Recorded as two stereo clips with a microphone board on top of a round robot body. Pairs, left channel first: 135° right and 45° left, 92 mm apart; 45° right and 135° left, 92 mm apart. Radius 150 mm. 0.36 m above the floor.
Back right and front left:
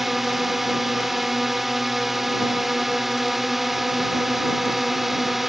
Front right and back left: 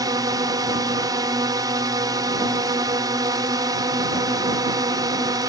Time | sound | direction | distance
0.0 | a drone | 135° left | ?